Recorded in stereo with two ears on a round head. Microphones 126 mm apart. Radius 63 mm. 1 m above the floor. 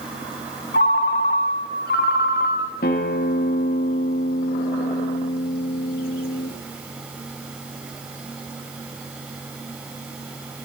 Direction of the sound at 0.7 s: 70° left (ahead or behind).